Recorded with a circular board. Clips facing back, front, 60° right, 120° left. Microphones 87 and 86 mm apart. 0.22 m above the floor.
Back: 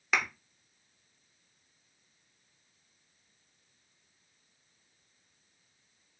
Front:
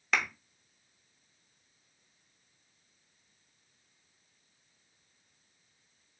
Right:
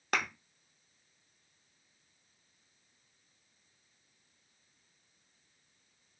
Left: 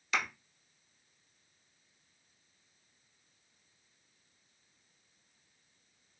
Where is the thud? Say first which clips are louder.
Even, right 1 dB; 90° right, 0.8 m.